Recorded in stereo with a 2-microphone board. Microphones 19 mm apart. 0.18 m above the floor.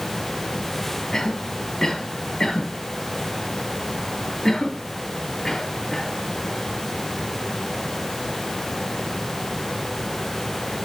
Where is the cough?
25° left (ahead or behind), 4 m.